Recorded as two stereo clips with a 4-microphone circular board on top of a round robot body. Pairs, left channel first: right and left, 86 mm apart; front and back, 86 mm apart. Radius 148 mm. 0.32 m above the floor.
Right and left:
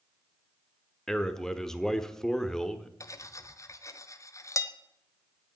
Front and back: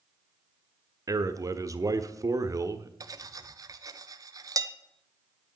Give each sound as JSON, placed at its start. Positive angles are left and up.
{"t": 1.1, "sound": "a man speaking", "azimuth_deg": -170, "distance_m": 1.5}
{"t": 3.0, "sound": "cutlery clinking", "azimuth_deg": -140, "distance_m": 1.3}